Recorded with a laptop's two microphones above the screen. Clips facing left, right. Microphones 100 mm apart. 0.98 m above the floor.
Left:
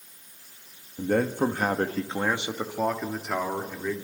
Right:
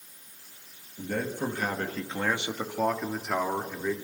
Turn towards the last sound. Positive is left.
turn(degrees=-10)  # may be behind; listen again after turning